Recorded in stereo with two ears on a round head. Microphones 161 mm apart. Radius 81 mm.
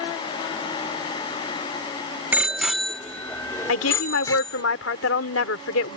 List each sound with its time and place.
2.3 s a bicycle bell: 10° right (ahead or behind); by 4.6 s 20° left (ahead or behind)
3.7 s a woman speaking: 85° left